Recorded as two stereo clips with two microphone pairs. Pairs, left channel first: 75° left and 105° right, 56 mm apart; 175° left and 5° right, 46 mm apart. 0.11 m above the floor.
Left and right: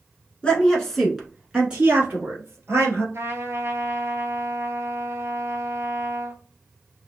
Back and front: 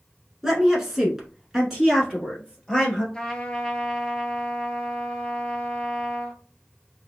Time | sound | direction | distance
0.4 | a woman speaking | 60° left | 1.2 m
3.1 | a trumpet | 115° right | 0.8 m